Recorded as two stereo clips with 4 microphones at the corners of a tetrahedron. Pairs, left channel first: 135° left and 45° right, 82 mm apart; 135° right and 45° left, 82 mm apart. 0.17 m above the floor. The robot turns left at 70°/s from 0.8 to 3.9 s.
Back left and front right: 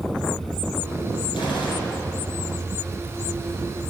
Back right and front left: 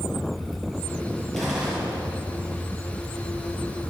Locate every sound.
1.3 s a gunshot: 145° left, 3.5 m; by 2.1 s 90° left, 3.5 m